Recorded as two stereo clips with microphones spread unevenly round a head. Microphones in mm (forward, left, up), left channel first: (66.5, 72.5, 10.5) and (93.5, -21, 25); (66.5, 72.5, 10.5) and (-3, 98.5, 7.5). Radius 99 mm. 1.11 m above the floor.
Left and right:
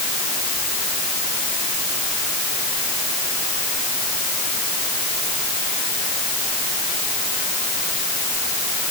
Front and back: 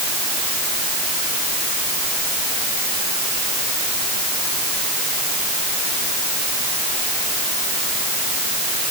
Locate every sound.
Only background noise.